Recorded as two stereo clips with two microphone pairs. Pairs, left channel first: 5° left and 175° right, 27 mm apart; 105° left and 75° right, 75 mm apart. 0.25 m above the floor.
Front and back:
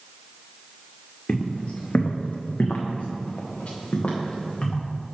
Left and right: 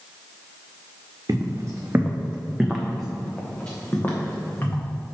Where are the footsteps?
40° right, 1.1 m; by 4.8 s 50° left, 2 m.